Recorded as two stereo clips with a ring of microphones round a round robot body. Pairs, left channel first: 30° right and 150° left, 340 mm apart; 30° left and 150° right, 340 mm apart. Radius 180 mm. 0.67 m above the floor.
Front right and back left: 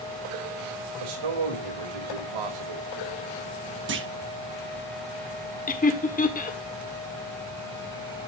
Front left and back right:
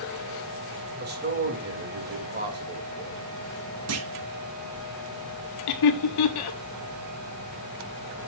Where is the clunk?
170° right, 1.5 m.